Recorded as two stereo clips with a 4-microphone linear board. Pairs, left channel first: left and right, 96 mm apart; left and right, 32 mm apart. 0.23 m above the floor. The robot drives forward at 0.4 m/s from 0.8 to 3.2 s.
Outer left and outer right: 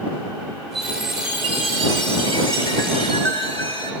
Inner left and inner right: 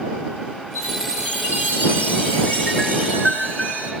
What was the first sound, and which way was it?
A chime, 60° left (ahead or behind).